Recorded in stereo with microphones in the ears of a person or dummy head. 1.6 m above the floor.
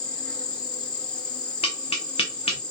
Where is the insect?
20° left (ahead or behind), 1.2 m.